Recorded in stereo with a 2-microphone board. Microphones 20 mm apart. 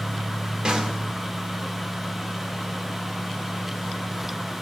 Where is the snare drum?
50° right (ahead or behind), 1.2 m.